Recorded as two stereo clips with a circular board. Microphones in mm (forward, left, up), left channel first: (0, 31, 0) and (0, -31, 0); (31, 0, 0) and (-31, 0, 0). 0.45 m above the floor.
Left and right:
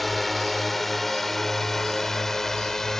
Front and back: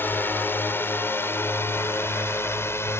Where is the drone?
Straight ahead; by 3.0 s 10° left.